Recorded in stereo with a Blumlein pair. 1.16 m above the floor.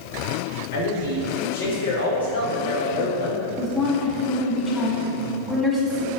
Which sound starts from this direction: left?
A man speaking, at 0.7 s.